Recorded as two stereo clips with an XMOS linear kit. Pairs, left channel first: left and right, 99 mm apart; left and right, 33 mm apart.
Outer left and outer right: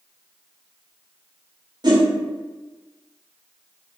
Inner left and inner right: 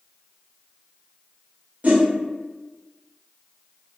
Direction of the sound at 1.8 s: 45° right (ahead or behind).